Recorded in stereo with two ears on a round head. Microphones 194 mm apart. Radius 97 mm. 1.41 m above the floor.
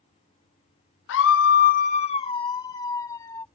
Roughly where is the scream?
Left.